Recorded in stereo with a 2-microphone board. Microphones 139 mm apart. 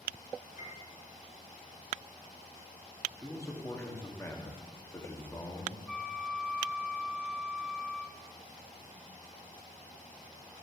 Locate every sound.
0.6 s a piano: 65° left (ahead or behind), 3 m
3.2 s a man speaking: 20° left (ahead or behind), 1.7 m
5.9 s a flute: centre (ahead or behind), 0.6 m